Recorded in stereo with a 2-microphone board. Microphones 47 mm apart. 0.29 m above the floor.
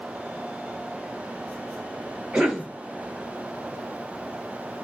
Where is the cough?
5° right (ahead or behind), 1.3 m.